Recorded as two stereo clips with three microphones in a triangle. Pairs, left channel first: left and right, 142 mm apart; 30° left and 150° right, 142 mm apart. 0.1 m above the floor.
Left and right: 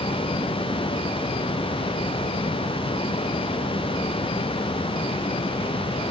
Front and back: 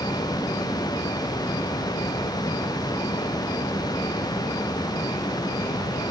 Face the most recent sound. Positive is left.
No sound to turn to.